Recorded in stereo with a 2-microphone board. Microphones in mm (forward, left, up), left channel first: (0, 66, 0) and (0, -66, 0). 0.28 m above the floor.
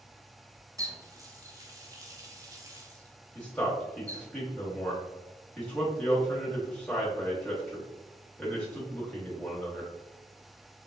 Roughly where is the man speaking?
Centre.